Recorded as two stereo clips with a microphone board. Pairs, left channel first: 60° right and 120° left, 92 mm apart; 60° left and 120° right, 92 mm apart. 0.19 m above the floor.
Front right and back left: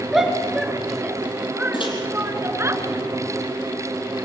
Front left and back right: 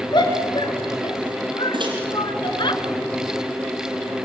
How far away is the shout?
About 3 m.